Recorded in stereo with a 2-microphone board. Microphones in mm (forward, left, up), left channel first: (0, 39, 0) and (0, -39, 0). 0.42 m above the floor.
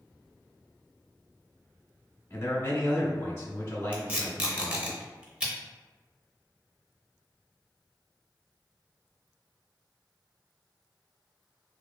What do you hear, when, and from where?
2.3 s a man speaking: 30° left (ahead or behind), 0.9 m
3.9 s tape being pulled: 15° right (ahead or behind), 0.6 m